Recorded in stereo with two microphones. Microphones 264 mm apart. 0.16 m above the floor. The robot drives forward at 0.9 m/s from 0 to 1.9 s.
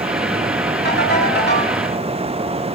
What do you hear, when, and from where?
0.8 s a ringtone: 40° left (ahead or behind), 8 m; by 1.8 s 45° left (ahead or behind), 7.5 m